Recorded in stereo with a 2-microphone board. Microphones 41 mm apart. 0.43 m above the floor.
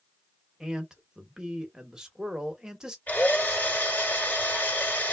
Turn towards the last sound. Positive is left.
turn(degrees=45)  # may be behind; listen again after turning